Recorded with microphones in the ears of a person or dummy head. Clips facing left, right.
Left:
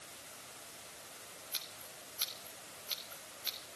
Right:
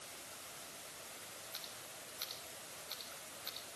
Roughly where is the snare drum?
No snare drum in this recording.